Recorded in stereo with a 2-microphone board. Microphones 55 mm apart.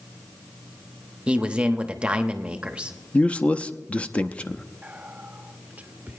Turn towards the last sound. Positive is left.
turn(degrees=-25)  # may be behind; listen again after turning